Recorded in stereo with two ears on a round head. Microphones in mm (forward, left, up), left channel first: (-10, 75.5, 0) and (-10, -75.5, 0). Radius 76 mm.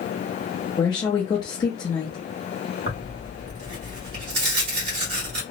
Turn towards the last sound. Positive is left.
turn(degrees=-65)  # may be behind; listen again after turning